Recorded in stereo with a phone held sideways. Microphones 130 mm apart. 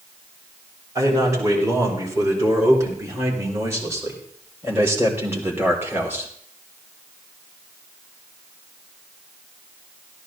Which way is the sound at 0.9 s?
25° right (ahead or behind).